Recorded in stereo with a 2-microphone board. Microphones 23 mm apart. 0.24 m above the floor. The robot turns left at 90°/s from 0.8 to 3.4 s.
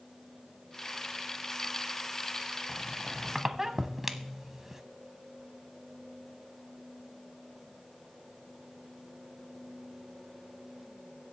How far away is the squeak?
About 0.9 m.